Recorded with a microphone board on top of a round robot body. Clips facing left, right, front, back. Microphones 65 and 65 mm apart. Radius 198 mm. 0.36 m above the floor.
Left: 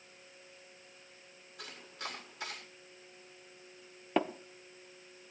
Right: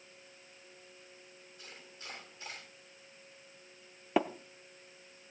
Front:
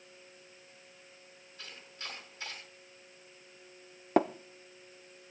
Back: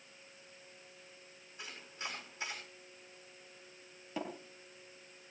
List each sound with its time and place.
1.6 s chopping: 110° left, 8 m
4.2 s tapping: 5° right, 1.1 m